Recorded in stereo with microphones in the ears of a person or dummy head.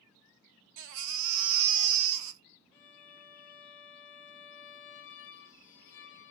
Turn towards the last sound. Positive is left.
turn(degrees=55)  # may be behind; listen again after turning